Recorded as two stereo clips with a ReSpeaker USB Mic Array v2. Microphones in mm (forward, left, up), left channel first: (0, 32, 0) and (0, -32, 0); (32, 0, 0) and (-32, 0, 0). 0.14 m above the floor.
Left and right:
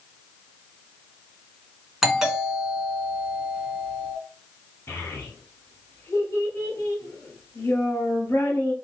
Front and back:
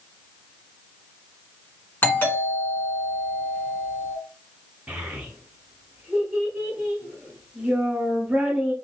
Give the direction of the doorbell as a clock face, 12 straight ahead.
12 o'clock.